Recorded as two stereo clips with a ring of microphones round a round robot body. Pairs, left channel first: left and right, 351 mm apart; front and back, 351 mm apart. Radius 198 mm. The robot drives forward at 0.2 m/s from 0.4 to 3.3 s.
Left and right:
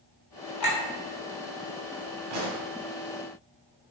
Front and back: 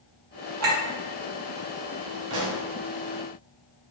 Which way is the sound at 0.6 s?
130° left.